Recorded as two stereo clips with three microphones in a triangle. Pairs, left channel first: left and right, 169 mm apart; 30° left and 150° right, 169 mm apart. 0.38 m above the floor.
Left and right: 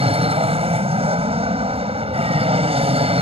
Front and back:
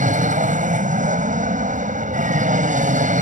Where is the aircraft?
135° right.